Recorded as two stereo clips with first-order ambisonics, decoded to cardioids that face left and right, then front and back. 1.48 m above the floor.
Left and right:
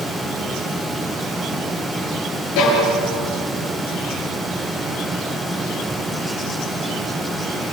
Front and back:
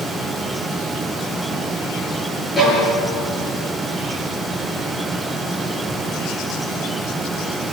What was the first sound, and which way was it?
A violin, 80° left.